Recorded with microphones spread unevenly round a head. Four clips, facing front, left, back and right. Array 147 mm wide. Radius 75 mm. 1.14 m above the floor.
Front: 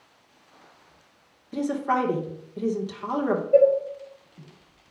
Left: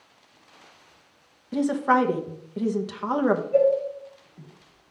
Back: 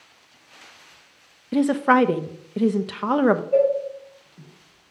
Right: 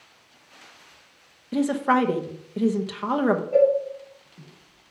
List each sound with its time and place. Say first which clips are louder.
1.5 s a woman speaking: even, back 7 dB; 170° right, 0.8 m
3.5 s a cowbell: right 2 dB, front 4 dB; 145° right, 3 m